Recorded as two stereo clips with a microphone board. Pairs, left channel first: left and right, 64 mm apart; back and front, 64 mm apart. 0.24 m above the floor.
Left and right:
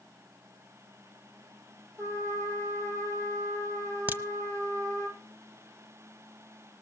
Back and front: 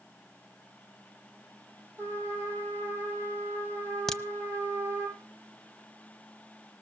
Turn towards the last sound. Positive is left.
turn(degrees=-105)